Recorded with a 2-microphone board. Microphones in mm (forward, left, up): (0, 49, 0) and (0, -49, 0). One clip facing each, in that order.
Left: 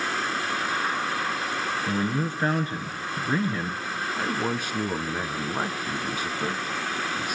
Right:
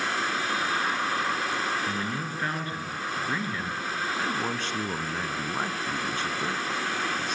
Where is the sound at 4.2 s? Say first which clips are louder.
Left 5 dB; 10° left (ahead or behind), 1.2 m.